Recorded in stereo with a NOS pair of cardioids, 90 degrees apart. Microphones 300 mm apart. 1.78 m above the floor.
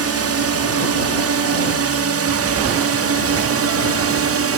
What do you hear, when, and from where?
0.0 s a drone: 55° right